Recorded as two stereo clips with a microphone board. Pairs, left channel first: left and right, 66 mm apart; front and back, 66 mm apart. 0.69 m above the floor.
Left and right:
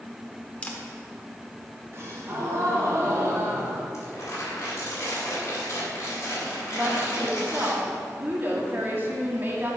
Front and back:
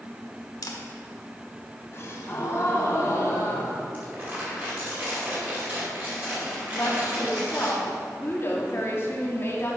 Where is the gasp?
50° right, 1.4 m.